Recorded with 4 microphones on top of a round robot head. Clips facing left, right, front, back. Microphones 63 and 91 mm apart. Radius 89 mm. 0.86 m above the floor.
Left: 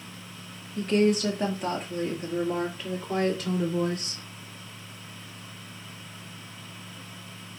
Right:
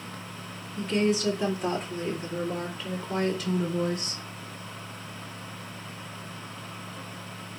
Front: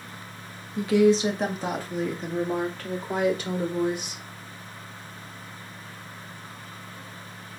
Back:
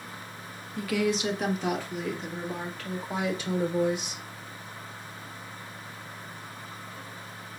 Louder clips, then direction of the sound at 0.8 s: Left 3 dB, front 8 dB; 65° left.